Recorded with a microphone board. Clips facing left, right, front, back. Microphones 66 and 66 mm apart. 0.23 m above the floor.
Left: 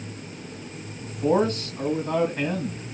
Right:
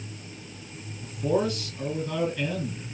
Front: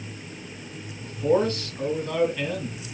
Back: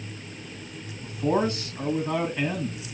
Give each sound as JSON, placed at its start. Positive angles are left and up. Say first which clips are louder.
{"t": 1.0, "sound": "a man speaking", "louder": "left 4 dB, front 2 dB", "azimuth_deg": 115, "distance_m": 1.9}